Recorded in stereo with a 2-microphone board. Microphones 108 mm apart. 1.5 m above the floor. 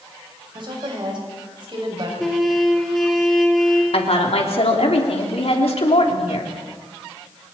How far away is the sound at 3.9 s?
About 3 m.